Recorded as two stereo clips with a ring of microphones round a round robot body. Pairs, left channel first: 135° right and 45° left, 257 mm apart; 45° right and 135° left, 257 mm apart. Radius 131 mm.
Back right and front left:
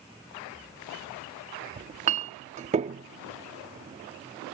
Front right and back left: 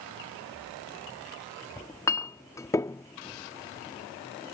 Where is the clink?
20° left.